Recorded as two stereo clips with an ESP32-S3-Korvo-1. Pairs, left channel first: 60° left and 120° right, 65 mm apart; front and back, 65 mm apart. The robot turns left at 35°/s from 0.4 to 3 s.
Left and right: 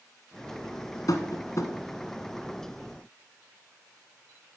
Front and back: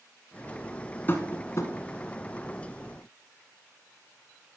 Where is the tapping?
55° left, 1.2 m; by 1.7 s 30° left, 1.2 m.